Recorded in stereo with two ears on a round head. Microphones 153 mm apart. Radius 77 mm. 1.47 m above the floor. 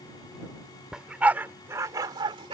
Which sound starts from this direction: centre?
A dog barking, at 0.9 s.